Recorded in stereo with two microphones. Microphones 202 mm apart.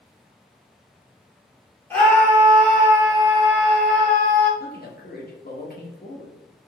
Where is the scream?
10° left (ahead or behind), 1.9 m.